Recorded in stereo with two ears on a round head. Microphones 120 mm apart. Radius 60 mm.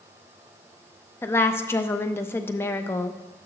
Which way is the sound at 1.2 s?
20° left (ahead or behind).